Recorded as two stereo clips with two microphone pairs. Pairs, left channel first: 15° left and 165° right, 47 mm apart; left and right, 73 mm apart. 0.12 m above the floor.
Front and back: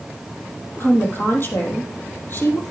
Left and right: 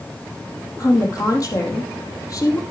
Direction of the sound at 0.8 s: 50° left.